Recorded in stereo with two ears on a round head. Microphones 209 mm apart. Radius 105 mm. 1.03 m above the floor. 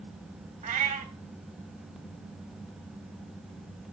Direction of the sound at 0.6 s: 35° right (ahead or behind).